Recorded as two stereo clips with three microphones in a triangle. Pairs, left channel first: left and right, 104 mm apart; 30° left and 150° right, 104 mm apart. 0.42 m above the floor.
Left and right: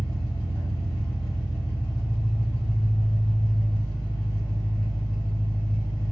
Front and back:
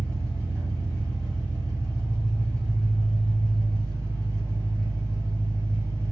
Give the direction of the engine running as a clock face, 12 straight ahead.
8 o'clock.